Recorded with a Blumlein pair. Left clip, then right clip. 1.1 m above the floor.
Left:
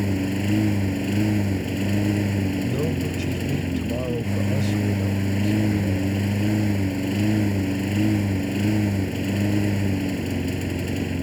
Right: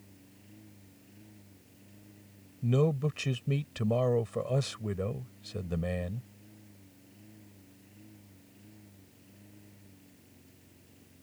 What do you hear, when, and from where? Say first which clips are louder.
0.0 s a lawn mower: left 33 dB; 45° left
2.6 s a man speaking: left 4 dB; 5° right